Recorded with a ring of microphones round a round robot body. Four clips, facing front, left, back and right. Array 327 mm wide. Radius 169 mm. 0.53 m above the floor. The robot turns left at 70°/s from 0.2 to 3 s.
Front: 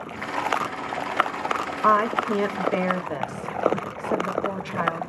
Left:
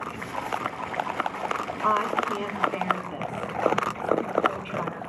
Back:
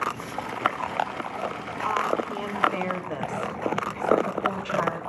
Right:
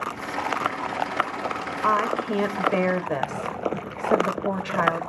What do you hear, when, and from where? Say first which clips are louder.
1.8 s a woman speaking: right 2 dB, front 6 dB; straight ahead, 2 m; by 5.1 s 85° right, 2 m